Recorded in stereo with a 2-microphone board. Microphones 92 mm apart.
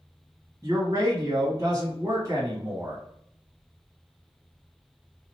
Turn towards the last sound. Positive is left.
turn(degrees=-35)  # may be behind; listen again after turning